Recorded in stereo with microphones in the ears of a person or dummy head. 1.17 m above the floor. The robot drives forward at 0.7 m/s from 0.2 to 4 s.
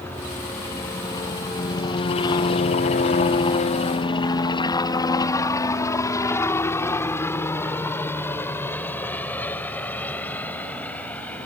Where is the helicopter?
10° left (ahead or behind).